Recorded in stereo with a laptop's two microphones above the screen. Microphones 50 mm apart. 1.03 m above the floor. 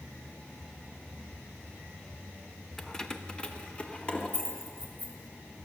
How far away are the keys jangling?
About 0.7 m.